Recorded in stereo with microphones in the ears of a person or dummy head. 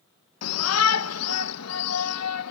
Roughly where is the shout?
Left.